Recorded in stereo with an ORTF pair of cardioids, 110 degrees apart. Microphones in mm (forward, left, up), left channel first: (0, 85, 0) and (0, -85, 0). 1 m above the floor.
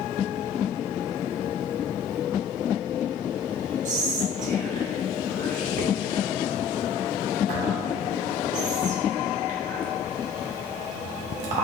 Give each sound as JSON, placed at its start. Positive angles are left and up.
{"t": 3.9, "sound": "whispering", "azimuth_deg": -50, "distance_m": 0.9}